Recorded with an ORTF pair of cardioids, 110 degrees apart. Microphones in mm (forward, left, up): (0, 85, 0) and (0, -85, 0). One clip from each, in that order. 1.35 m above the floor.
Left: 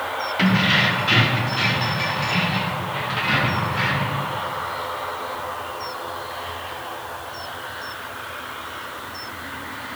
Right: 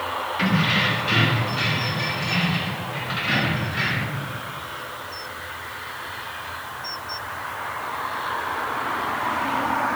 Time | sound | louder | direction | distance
0.4 | keys jangling | left 3 dB | 25° left | 2.0 m